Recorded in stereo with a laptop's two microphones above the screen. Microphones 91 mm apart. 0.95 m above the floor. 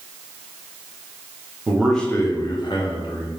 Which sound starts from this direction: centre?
A man speaking, at 1.7 s.